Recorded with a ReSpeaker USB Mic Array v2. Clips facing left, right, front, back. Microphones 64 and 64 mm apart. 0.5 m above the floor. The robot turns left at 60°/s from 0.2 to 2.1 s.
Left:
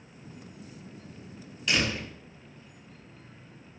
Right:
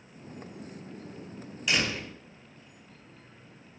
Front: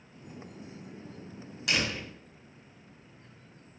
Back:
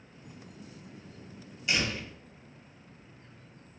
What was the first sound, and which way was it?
A door slam, 5° right.